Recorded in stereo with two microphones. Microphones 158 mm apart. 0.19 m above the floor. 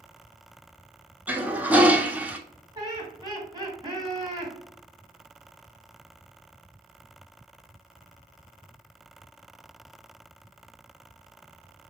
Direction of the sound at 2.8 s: 25° right (ahead or behind).